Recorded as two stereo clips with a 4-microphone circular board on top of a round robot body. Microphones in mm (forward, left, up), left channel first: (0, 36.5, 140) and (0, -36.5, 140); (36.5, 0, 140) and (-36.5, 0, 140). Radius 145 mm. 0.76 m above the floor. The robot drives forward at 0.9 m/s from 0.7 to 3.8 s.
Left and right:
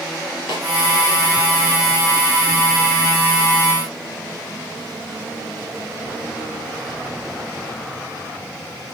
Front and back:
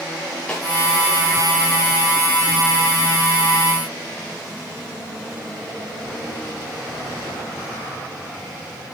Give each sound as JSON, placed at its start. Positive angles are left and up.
{"t": 0.5, "sound": "a snare drum", "azimuth_deg": 75, "distance_m": 4.0}